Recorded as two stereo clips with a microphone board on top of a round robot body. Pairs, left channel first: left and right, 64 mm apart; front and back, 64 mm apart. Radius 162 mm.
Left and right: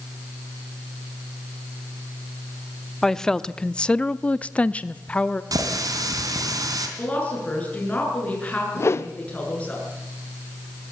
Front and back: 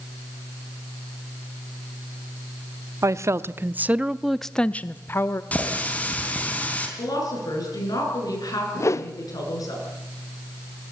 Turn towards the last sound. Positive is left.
turn(degrees=45)